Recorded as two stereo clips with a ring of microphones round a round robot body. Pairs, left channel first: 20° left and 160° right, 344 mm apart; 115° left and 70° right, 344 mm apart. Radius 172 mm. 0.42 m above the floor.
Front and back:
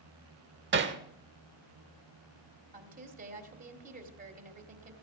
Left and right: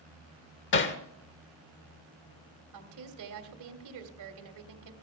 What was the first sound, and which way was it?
Hammering, 155° left.